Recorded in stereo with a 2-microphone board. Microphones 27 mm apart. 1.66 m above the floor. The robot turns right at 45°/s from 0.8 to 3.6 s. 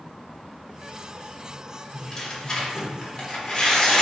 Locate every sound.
1.9 s tearing paper: 15° left (ahead or behind), 0.9 m; by 4.0 s 30° left (ahead or behind), 0.9 m